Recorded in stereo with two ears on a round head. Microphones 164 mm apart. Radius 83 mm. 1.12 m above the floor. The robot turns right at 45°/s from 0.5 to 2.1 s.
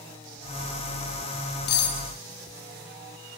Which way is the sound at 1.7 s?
60° left (ahead or behind).